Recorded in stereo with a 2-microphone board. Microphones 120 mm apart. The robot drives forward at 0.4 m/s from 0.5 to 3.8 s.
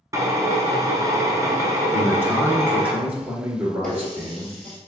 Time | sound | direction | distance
0.1 | a drill | 30° right (ahead or behind) | 0.8 m
1.9 | a man speaking | 15° right (ahead or behind) | 1.1 m
3.8 | a running tap | 5° left (ahead or behind) | 1.3 m